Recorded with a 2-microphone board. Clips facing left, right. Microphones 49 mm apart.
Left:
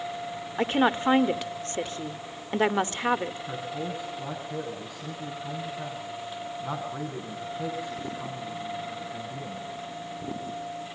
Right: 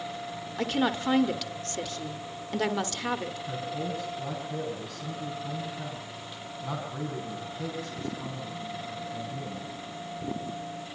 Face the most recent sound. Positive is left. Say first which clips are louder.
# even
turn(degrees=15)  # may be behind; listen again after turning